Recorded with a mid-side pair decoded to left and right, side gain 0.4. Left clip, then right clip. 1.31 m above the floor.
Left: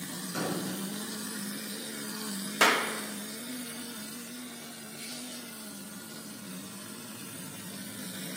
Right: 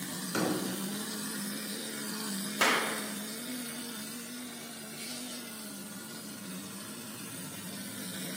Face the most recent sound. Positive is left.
turn(degrees=35)